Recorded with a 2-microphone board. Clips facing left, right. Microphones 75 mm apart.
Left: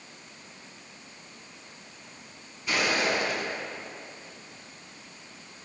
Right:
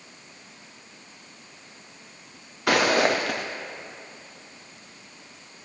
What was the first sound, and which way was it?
Footsteps, 80° right.